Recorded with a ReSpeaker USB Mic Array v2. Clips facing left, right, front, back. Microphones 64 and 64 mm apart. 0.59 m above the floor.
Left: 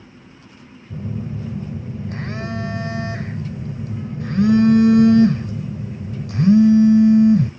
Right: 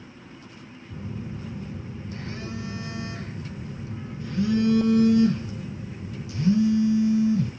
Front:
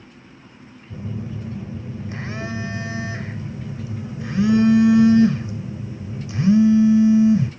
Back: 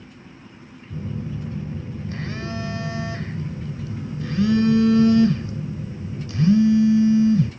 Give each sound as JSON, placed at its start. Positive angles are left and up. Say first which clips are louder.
{"t": 0.9, "sound": "a phone buzzing", "louder": "left 7 dB, even", "azimuth_deg": 70, "distance_m": 2.5}